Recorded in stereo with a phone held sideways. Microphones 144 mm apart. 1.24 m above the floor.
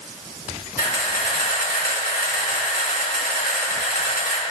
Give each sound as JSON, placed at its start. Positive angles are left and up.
{"t": 0.8, "sound": "a camera shutter", "side_deg": 75, "distance_m": 1.6}